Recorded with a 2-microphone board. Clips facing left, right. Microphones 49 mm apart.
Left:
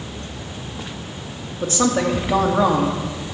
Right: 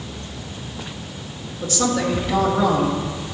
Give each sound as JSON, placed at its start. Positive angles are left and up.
{"t": 1.6, "sound": "a woman speaking", "side_deg": 30, "distance_m": 1.6}